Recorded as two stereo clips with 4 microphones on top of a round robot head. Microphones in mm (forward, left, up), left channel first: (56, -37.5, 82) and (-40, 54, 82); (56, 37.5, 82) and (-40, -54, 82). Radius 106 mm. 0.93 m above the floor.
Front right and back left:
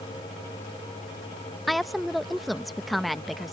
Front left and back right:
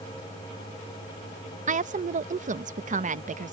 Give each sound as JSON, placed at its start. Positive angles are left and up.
{"t": 1.7, "sound": "a woman speaking", "azimuth_deg": -135}